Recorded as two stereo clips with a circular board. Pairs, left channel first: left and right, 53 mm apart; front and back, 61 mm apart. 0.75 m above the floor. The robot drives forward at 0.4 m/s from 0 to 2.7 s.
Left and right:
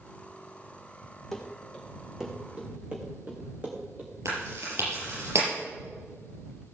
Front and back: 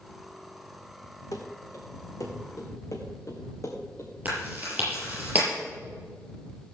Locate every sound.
1.3 s running footsteps: straight ahead, 2.5 m; by 4.1 s 30° right, 3.5 m
4.2 s chewing: 115° right, 7.5 m